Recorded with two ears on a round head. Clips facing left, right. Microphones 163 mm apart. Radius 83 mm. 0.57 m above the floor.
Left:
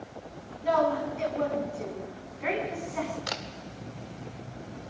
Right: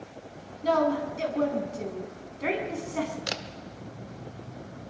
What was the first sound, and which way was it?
A woman speaking, 50° right (ahead or behind).